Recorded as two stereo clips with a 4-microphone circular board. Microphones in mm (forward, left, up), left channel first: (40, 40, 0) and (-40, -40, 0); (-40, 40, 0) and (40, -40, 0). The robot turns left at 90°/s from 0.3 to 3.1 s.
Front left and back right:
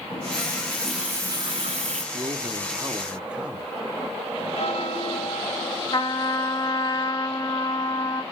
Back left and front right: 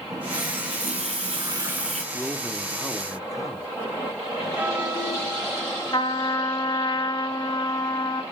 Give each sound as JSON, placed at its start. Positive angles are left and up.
{"t": 0.1, "sound": "a running tap", "azimuth_deg": 10, "distance_m": 2.0}
{"t": 2.1, "sound": "a man speaking", "azimuth_deg": -120, "distance_m": 0.7}
{"t": 4.6, "sound": "a bell", "azimuth_deg": 30, "distance_m": 1.3}
{"t": 5.9, "sound": "a trumpet", "azimuth_deg": 90, "distance_m": 0.6}